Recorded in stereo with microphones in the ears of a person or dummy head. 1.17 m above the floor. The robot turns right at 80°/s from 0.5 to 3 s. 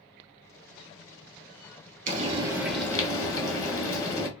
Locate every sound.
2.1 s frying: 50° right, 1.7 m; by 4.3 s 25° left, 1.7 m